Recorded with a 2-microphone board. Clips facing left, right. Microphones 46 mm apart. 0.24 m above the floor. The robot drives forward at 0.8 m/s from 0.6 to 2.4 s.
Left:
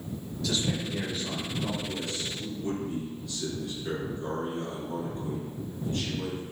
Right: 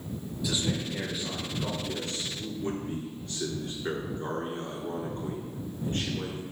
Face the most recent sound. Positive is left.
turn(degrees=-45)  # may be behind; listen again after turning